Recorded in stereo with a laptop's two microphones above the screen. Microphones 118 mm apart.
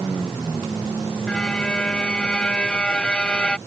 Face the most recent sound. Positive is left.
turn(degrees=10)  # may be behind; listen again after turning